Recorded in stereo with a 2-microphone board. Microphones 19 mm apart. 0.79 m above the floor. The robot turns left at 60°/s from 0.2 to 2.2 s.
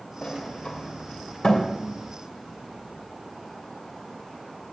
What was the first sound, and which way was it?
A sliding door, 50° left (ahead or behind).